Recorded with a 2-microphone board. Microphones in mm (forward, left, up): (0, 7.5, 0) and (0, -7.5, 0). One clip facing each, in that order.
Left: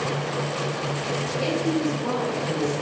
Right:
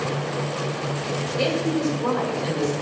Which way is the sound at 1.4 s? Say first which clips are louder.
Right 2 dB; 75° right (ahead or behind).